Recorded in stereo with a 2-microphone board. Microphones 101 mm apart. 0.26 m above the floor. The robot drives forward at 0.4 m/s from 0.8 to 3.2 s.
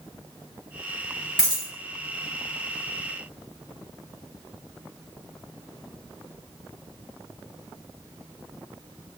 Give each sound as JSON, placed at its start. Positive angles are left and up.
{"t": 1.4, "sound": "a dropped coin", "side_deg": -10, "distance_m": 1.7}